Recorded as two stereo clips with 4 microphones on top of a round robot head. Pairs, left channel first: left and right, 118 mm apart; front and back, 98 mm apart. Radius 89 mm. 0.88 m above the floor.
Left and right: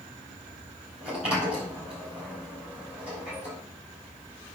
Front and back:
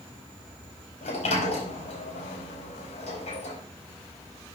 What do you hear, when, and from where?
1.0 s a sliding door: 5° right, 4 m